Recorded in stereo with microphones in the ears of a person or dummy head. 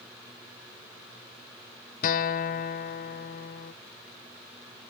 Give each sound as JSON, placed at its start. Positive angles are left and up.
{"t": 2.0, "sound": "a guitar", "side_deg": 50, "distance_m": 0.6}